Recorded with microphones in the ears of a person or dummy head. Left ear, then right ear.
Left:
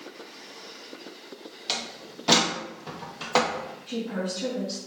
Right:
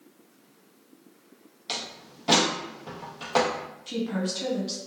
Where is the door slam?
15° left (ahead or behind), 0.5 m.